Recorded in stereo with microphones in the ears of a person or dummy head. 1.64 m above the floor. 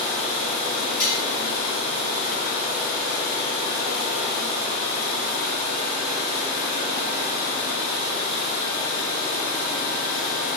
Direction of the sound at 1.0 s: 5° left (ahead or behind).